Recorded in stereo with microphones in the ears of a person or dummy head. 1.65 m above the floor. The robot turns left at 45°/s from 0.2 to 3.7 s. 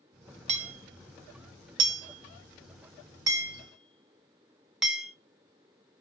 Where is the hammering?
35° right (ahead or behind), 0.6 m; by 5.1 s centre (ahead or behind), 0.6 m.